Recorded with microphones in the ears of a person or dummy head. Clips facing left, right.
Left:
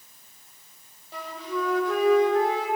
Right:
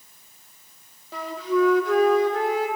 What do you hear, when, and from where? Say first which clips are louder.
1.1 s a flute: right 8 dB; 65° right (ahead or behind), 1.2 m